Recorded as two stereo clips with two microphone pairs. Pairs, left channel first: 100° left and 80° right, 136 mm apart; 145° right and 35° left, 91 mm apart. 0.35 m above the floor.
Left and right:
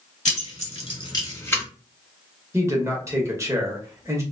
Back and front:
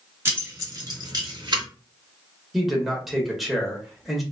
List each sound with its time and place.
0.2 s keys jangling: 95° left, 1.0 m; by 1.6 s 25° left, 1.1 m
2.5 s a man speaking: 55° right, 0.9 m